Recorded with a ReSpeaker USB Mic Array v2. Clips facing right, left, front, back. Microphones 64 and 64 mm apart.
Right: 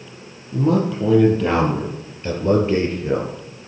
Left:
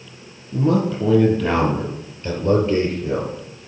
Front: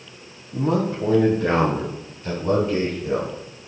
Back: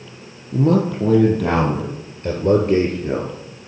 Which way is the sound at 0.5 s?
175° right.